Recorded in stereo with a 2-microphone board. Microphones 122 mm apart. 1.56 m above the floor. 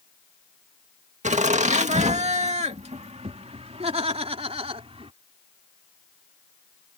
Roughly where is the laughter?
Right.